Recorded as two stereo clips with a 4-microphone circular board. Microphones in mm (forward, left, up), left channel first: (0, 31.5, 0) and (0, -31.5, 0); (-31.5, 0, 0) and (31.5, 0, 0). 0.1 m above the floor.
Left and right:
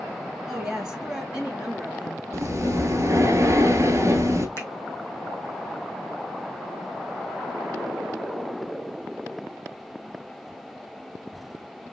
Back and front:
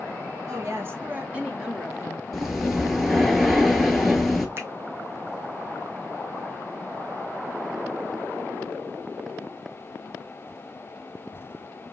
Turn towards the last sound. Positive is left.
turn(degrees=40)